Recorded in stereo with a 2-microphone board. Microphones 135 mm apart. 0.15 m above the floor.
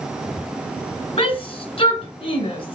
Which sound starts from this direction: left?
A shout, at 1.2 s.